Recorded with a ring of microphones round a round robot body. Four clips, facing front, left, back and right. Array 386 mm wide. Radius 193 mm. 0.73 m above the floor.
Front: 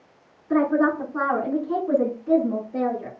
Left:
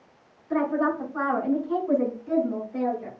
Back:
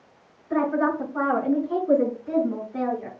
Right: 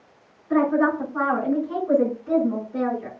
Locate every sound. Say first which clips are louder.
0.5 s a woman speaking: right 4 dB, front 3 dB; 10° right, 7 m; by 3.1 s 20° right, 7 m